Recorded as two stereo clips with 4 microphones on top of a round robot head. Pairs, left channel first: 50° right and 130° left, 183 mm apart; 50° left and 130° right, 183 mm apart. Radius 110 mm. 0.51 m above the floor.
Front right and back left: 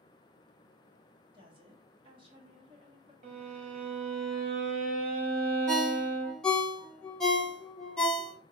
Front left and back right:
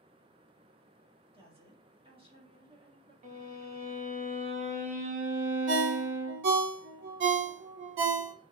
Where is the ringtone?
135° right, 0.9 m.